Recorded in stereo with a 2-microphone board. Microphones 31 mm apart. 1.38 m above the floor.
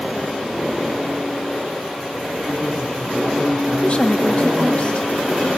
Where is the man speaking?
20° right (ahead or behind), 8.5 m.